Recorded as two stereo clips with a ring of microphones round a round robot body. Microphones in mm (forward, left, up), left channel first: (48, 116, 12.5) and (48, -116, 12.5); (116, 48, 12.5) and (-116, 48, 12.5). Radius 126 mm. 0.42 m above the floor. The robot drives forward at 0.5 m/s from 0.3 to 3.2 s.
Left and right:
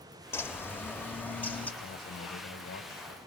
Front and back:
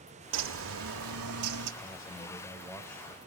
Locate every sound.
0.3 s a bird: 170° left, 0.9 m; by 1.7 s 175° left, 1.5 m
1.8 s a man speaking: 70° left, 2.5 m; by 3.2 s 90° left, 2 m